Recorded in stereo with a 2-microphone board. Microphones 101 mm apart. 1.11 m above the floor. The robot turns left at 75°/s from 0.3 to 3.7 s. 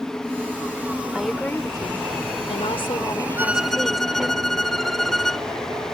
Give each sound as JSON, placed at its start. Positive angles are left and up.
{"t": 1.1, "sound": "a woman speaking", "azimuth_deg": -170}
{"t": 3.4, "sound": "a violin", "side_deg": -20}